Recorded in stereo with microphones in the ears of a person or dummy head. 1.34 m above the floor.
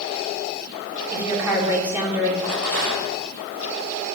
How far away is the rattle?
About 3 m.